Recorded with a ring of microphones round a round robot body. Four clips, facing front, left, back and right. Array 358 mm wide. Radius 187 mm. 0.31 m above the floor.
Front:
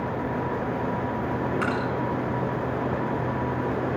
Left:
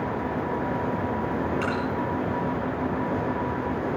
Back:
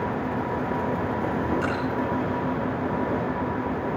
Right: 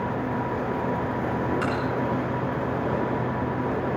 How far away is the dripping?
About 6 m.